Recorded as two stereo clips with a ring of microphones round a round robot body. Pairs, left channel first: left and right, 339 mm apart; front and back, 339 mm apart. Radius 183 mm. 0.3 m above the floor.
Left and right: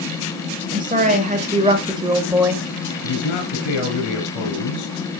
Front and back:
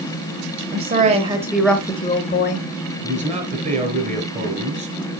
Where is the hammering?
I don't hear hammering.